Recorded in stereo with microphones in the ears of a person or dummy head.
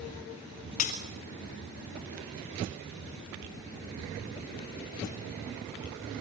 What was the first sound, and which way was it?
Breaking glass, 40° left (ahead or behind).